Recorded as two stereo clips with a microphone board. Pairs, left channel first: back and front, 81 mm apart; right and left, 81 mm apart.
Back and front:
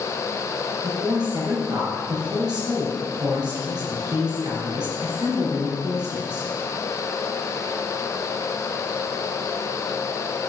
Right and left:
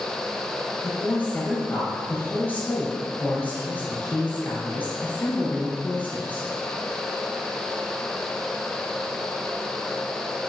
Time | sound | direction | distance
0.8 | a woman speaking | 25° right | 3 m